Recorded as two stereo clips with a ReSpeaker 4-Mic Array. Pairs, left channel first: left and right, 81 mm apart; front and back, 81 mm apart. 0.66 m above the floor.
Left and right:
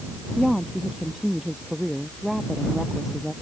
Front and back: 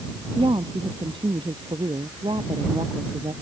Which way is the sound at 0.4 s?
175° right.